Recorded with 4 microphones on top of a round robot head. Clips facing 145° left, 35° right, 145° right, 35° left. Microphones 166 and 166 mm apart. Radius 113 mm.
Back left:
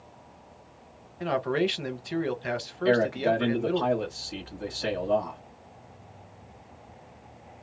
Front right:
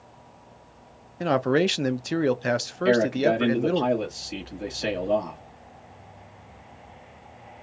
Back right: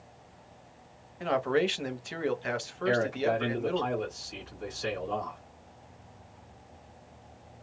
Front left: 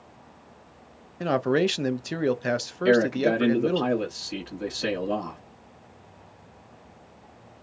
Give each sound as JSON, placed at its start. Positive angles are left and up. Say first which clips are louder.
{"t": 1.2, "sound": "a man speaking", "louder": "front right 5 dB, front left 4 dB", "azimuth_deg": 0, "distance_m": 0.7}
{"t": 2.9, "sound": "a man speaking", "louder": "front right 3 dB, front left 7 dB", "azimuth_deg": 30, "distance_m": 1.0}